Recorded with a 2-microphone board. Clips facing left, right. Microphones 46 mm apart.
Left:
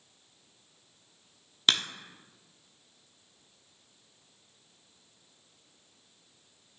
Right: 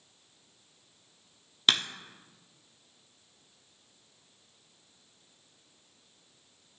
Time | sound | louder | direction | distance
1.7 | a crack | even | centre (ahead or behind) | 0.7 m